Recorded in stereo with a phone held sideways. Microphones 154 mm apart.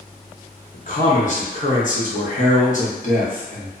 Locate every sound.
0.7 s a man speaking: 55° left (ahead or behind), 0.9 m